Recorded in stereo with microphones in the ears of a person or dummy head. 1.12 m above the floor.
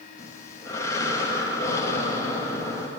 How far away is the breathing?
About 1.0 m.